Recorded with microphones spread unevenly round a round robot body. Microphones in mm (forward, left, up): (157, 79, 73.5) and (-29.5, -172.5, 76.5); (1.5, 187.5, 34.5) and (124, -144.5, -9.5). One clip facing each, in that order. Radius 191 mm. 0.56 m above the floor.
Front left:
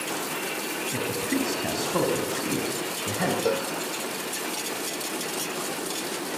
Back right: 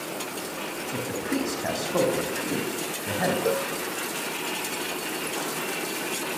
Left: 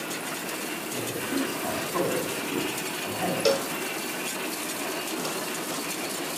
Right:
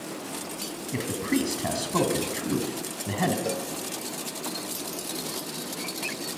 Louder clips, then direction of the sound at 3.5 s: Even, left 6 dB; 140° left.